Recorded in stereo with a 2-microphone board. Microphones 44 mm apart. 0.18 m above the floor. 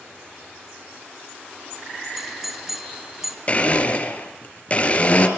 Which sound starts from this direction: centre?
A doorbell, at 2.2 s.